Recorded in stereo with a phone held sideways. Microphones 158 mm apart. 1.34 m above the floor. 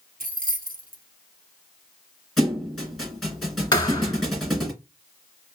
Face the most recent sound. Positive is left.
turn(degrees=30)  # may be behind; listen again after turning